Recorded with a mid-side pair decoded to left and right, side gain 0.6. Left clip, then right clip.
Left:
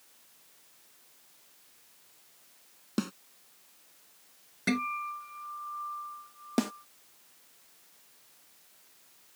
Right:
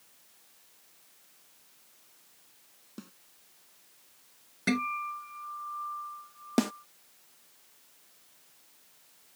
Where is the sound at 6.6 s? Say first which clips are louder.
Right 2 dB; 15° right.